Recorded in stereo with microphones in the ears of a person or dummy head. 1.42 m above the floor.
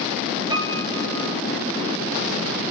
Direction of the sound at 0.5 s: 30° right (ahead or behind).